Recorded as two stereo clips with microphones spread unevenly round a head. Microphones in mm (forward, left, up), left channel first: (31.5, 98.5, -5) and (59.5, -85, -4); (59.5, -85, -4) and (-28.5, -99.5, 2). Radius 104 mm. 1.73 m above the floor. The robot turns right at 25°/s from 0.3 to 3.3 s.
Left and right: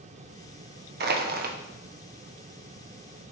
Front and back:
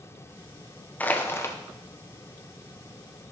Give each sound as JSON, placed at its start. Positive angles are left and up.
{"t": 1.0, "sound": "crushing", "azimuth_deg": -65, "distance_m": 0.9}